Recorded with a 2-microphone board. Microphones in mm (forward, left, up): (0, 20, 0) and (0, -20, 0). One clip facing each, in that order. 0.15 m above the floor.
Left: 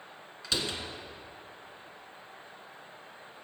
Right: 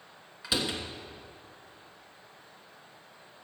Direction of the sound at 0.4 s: 15° right (ahead or behind).